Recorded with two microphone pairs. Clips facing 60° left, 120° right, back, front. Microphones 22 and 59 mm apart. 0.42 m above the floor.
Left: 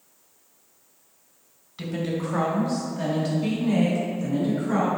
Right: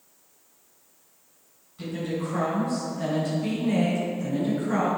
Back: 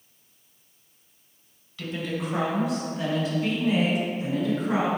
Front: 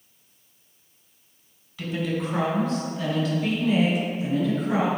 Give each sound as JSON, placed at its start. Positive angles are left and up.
{"t": 1.8, "sound": "a woman speaking", "azimuth_deg": 80, "distance_m": 2.5}